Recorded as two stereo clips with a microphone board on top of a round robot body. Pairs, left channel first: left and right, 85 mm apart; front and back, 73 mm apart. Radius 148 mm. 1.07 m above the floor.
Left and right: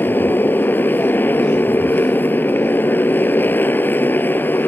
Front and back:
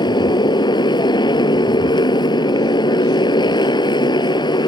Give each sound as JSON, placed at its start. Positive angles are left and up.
{"t": 0.0, "sound": "a motorcycle", "azimuth_deg": 20}